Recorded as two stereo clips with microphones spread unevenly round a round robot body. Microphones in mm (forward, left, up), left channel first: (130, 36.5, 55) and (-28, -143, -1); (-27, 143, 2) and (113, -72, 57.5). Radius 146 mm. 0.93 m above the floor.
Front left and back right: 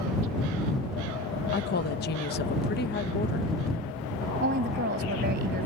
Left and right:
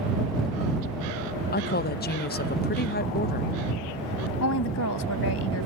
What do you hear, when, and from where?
1.5 s a woman speaking: 105° left
4.4 s a woman speaking: 170° left